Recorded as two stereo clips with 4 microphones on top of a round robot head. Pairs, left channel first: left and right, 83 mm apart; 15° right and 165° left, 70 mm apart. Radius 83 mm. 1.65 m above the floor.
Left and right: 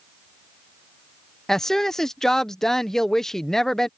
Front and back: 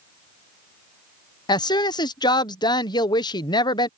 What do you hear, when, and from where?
1.5 s a woman speaking: 5° left